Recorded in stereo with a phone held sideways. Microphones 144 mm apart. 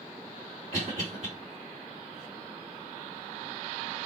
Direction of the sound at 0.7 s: 60° right (ahead or behind).